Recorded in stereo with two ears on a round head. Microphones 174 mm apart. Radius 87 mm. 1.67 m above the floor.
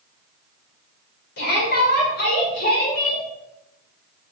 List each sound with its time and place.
1.4 s a shout: 55° left (ahead or behind), 5.5 m; by 3.2 s 50° left (ahead or behind), 4.5 m